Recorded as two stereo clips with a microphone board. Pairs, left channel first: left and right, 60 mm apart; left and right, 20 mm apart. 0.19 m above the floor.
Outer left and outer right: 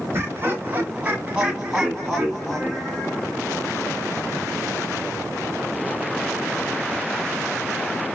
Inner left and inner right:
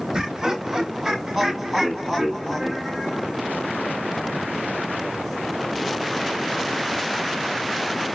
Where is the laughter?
35° right (ahead or behind), 1.9 m; by 3.4 s 15° left (ahead or behind), 3 m.